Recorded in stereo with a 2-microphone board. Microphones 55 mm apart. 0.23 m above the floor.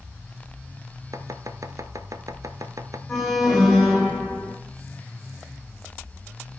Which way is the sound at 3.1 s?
10° left (ahead or behind).